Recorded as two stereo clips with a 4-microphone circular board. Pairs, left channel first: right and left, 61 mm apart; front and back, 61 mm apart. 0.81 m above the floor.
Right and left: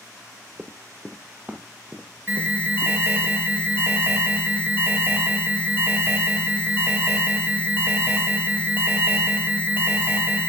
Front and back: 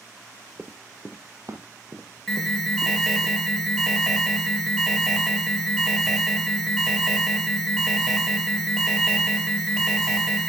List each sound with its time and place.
0.6 s running footsteps: 125° left, 1.0 m; by 3.3 s 165° left, 3 m
2.3 s an alarm: 80° left, 1.9 m